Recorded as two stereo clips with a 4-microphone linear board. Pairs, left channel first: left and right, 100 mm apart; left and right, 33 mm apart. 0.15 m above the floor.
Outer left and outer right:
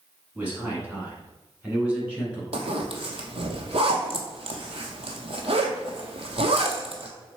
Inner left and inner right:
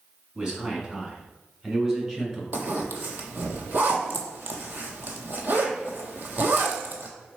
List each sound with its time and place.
0.3 s a man speaking: 20° right (ahead or behind), 1.4 m; by 2.4 s 10° right (ahead or behind), 1.8 m
2.5 s a zipper: 75° right (ahead or behind), 0.9 m